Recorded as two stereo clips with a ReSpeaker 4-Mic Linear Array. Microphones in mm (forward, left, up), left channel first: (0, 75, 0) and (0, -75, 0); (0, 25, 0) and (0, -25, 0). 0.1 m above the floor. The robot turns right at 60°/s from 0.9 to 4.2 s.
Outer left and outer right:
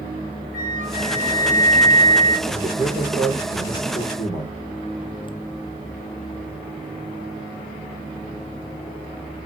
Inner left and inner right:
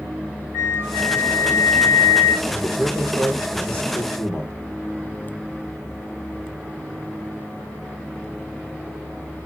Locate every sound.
0.5 s a flute: 110° right, 1.5 m; by 2.4 s 25° right, 1.5 m
2.5 s a man speaking: 45° right, 4 m; by 4.5 s 60° left, 4 m